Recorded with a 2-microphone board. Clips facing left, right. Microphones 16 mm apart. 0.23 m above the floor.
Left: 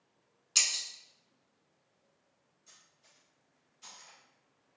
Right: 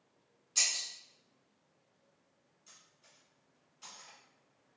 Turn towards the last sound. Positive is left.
turn(degrees=-20)  # may be behind; listen again after turning